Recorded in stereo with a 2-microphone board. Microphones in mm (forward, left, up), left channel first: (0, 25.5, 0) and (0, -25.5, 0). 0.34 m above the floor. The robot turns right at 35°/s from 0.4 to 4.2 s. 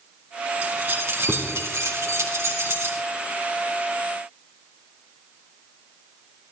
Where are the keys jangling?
30° right (ahead or behind), 2.5 m; by 3.0 s 60° right (ahead or behind), 2.5 m.